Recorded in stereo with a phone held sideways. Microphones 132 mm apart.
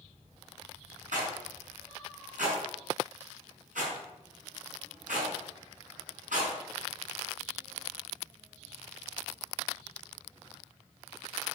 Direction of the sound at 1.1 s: 85° right.